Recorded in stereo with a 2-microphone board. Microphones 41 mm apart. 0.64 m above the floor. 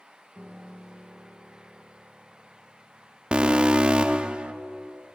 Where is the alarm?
25° right (ahead or behind), 0.5 m.